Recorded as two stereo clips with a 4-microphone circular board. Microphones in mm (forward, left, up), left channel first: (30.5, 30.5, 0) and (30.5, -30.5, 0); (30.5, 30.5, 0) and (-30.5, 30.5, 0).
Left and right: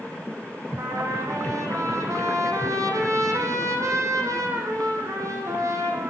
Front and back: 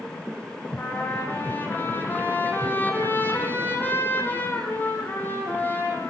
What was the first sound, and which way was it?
A trumpet, 60° right.